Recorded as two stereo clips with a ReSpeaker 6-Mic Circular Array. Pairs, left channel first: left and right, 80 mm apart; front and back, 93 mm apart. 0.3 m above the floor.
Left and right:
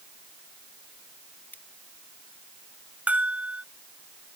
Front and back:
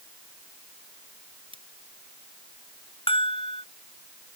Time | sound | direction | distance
1.5 | scissors | 160° left | ?
3.1 | a bell | 15° right | ?